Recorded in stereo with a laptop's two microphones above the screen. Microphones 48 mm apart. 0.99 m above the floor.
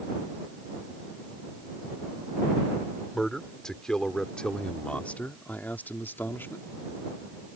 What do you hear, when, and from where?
3.1 s a man speaking: 10° left (ahead or behind); by 6.7 s 55° left (ahead or behind)